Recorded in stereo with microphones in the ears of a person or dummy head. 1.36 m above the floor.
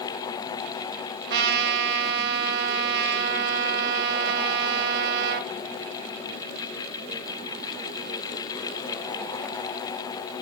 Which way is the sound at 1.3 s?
60° right (ahead or behind).